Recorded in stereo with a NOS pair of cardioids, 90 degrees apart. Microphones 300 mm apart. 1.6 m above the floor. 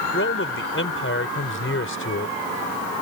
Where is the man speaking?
45° left.